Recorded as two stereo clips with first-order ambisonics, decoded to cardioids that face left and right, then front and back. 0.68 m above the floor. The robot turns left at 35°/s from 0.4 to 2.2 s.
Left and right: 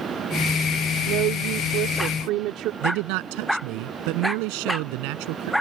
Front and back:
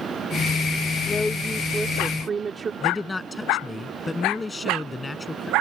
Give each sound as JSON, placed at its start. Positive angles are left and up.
{"t": 1.1, "sound": "a woman speaking", "azimuth_deg": -70}
{"t": 2.8, "sound": "a man speaking", "azimuth_deg": -80}